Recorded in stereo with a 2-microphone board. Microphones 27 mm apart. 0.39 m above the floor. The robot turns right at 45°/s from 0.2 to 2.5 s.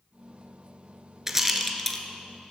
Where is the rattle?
15° right (ahead or behind), 1.0 m; by 2.0 s 20° left (ahead or behind), 1.0 m.